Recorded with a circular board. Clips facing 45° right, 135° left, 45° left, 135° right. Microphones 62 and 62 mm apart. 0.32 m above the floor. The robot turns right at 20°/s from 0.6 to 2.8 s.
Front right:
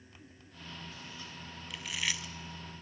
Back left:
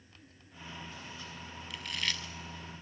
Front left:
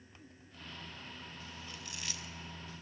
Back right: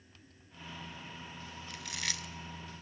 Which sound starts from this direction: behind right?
Chewing, at 1.7 s.